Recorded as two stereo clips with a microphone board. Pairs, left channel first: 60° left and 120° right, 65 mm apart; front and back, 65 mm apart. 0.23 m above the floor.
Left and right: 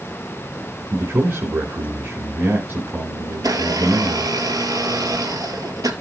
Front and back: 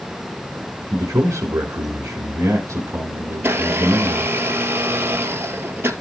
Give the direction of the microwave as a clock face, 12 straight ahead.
I don't hear a microwave.